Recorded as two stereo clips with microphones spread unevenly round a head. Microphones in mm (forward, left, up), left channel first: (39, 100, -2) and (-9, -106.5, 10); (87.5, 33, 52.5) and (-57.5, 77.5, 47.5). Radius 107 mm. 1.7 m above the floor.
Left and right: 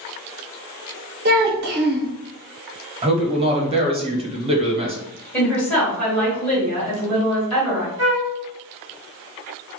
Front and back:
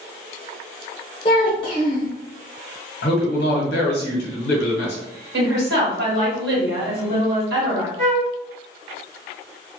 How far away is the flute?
About 1.4 m.